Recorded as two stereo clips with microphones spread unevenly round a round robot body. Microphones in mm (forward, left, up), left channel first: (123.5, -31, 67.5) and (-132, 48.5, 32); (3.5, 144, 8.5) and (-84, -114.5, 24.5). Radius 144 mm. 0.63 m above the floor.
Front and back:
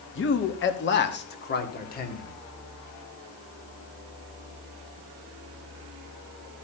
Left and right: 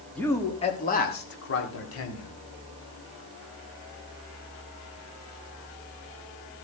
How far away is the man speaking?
About 1.4 m.